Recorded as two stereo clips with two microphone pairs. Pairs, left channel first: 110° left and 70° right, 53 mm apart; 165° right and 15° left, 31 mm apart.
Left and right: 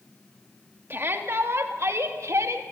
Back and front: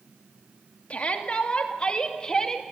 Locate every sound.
0.9 s a shout: 120° right, 2.5 m; by 2.6 s 90° right, 2.0 m